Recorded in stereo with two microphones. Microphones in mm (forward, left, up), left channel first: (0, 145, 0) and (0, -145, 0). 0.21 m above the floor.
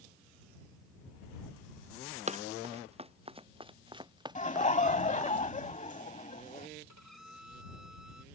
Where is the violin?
70° right (ahead or behind).